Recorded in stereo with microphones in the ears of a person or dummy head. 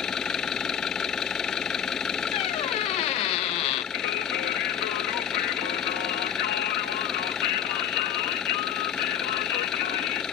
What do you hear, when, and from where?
0.0 s an engine running: 5° right (ahead or behind)
2.3 s a squeak: 30° left (ahead or behind)
3.9 s singing: 55° left (ahead or behind)